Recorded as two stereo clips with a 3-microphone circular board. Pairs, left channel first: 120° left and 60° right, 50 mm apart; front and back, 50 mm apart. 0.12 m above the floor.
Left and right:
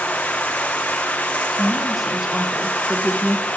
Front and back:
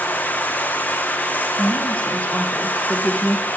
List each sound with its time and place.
0.0 s running water: 55° left, 0.8 m
1.6 s a woman speaking: 15° left, 1.3 m